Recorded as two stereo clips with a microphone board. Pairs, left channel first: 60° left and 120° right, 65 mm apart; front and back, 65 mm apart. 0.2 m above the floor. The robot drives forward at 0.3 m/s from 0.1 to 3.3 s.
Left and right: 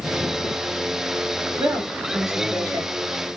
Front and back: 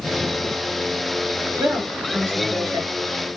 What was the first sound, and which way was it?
A woman speaking, 135° right.